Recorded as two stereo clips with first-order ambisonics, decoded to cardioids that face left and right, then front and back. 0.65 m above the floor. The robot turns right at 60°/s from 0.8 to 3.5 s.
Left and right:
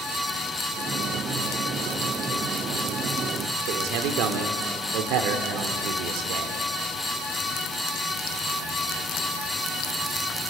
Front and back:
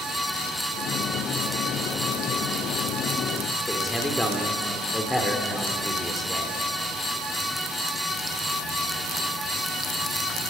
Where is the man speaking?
85° right, 2 m.